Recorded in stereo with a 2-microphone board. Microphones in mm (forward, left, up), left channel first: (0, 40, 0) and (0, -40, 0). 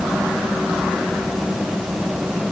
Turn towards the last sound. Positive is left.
No sound to turn to.